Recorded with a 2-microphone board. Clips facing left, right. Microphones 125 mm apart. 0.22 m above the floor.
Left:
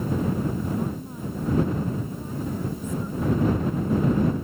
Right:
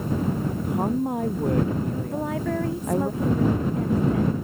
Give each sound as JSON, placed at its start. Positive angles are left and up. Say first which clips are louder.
{"t": 0.5, "sound": "a woman speaking", "louder": "right 3 dB", "side_deg": -60}
{"t": 2.1, "sound": "a woman speaking", "louder": "right 5 dB", "side_deg": -85}